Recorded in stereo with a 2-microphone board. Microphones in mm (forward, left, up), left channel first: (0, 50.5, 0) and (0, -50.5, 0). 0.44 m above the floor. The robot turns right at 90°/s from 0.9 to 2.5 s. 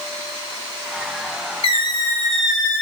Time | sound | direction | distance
1.6 | a squeak | 115° left | 0.5 m